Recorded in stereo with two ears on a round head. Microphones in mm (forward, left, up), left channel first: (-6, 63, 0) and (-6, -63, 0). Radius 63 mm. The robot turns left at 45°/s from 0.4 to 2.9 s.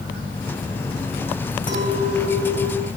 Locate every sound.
1.7 s a clink: 145° left, 4.5 m; by 2.9 s 90° left, 4.5 m